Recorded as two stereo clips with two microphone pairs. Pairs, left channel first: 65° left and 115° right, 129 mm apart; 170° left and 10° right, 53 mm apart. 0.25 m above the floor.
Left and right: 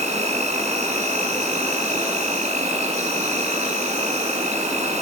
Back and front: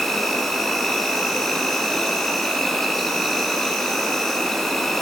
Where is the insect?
110° right, 2.5 m.